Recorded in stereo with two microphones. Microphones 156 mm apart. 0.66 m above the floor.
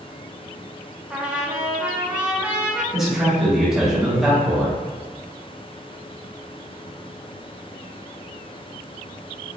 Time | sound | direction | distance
1.1 | a trumpet | 10° right (ahead or behind) | 0.8 m
2.9 | a man speaking | 5° right (ahead or behind) | 1.4 m